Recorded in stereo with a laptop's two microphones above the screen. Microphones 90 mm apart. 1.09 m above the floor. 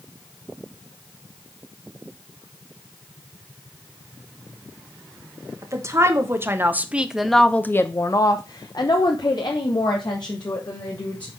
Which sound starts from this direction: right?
A woman speaking, at 5.6 s.